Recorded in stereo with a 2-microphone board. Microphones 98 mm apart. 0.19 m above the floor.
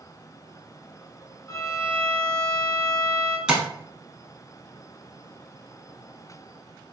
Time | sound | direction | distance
1.5 | a violin | 35° left (ahead or behind) | 1.2 m
3.5 | tapping | 10° right (ahead or behind) | 0.7 m